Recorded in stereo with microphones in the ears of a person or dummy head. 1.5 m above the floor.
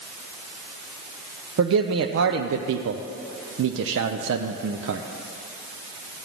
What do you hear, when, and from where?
1.6 s a man speaking: 65° right (ahead or behind), 0.6 m